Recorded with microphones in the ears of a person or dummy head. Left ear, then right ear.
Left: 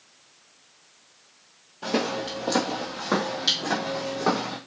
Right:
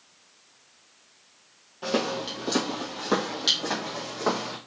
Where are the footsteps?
10° right (ahead or behind), 1.6 m.